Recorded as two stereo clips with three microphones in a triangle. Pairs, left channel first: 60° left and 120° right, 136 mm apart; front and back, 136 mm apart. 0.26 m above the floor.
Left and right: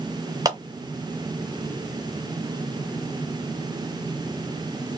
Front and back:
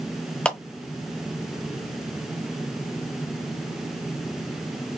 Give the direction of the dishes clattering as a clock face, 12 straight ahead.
No dishes clattering in this recording.